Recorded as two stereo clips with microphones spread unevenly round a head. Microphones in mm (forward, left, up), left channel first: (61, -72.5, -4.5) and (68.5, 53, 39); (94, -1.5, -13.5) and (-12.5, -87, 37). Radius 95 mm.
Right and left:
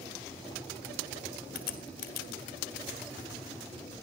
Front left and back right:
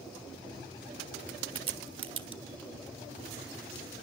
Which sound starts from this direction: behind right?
A crack, at 1.6 s.